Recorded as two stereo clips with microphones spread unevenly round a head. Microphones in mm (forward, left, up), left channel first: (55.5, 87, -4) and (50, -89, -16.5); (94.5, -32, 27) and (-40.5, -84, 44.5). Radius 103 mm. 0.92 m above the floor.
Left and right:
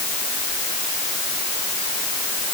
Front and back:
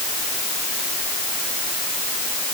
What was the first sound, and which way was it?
Only background noise.